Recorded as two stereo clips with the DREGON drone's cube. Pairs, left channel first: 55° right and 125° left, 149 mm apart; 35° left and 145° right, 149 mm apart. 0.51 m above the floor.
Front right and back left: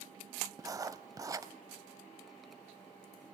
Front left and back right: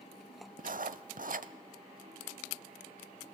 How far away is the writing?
About 0.8 m.